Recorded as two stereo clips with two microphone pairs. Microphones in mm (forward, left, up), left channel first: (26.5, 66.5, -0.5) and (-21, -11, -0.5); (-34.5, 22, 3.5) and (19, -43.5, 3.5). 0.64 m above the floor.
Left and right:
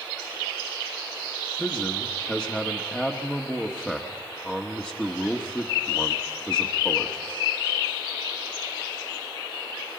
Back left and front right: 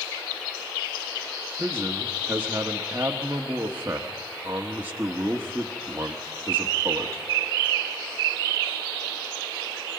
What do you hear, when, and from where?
1.6 s a man speaking: 10° right, 1.3 m